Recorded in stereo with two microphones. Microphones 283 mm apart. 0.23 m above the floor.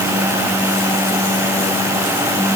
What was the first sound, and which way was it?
Only background noise.